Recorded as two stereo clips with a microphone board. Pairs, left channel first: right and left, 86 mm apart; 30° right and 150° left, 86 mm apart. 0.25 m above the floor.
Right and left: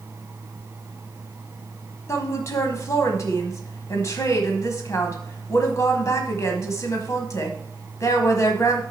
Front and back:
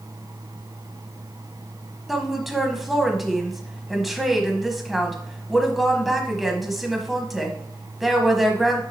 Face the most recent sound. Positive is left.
turn(degrees=-125)